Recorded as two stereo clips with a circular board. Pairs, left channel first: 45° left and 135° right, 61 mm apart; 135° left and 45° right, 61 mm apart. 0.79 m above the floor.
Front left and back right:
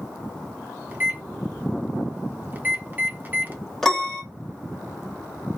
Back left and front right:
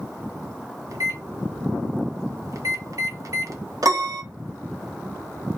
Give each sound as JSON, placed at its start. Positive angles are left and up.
{"t": 0.9, "sound": "a microwave", "azimuth_deg": -75, "distance_m": 0.6}
{"t": 3.8, "sound": "a piano", "azimuth_deg": -35, "distance_m": 1.1}